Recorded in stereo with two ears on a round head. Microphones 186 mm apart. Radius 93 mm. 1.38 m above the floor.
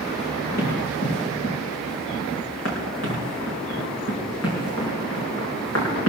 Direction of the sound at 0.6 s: 50° left (ahead or behind).